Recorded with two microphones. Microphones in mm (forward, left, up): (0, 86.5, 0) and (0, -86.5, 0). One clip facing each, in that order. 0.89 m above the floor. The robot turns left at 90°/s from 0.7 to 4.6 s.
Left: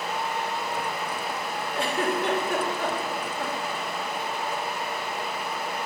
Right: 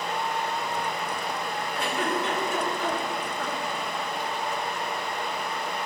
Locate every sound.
1.7 s a giggle: 25° left (ahead or behind), 1.4 m; by 3.8 s 35° right (ahead or behind), 1.4 m